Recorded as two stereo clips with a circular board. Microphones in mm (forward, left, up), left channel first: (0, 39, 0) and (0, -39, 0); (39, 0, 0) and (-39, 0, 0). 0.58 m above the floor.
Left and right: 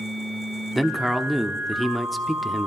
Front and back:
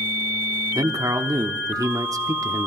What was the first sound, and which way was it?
A man speaking, straight behind.